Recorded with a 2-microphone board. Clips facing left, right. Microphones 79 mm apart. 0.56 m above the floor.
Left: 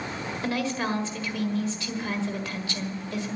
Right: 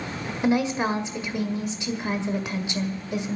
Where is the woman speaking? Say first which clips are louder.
Right 6 dB; 20° right (ahead or behind), 1.7 m.